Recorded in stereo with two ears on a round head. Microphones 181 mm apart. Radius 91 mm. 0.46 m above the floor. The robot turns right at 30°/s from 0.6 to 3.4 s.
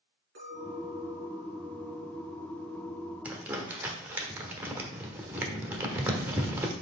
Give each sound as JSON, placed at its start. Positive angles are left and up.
{"t": 0.3, "sound": "a clink", "azimuth_deg": -115, "distance_m": 4.0}
{"t": 3.2, "sound": "crumpling", "side_deg": -10, "distance_m": 1.1}